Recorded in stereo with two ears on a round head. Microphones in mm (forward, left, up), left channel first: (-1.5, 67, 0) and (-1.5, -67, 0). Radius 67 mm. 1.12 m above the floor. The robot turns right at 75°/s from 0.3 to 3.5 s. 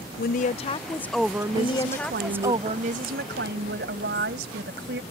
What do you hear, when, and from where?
0.2 s a woman speaking: 115° left; by 2.5 s 80° right
1.5 s a woman speaking: 135° left; by 5.0 s 80° right